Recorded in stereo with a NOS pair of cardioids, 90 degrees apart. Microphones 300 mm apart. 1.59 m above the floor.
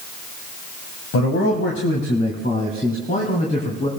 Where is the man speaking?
55° left, 1.7 m; by 3.9 s 20° left, 2.5 m.